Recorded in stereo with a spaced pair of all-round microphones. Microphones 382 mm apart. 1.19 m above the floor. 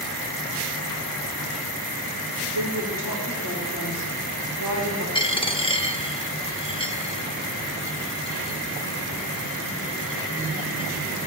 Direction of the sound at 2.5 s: 60° left (ahead or behind).